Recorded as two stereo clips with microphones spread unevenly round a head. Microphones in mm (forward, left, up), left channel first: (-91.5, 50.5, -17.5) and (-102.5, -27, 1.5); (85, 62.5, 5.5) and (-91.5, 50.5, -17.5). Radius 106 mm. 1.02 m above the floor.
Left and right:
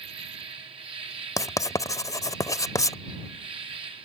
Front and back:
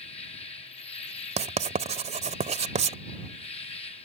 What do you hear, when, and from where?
0.0 s an insect: 60° right
1.4 s writing: 130° left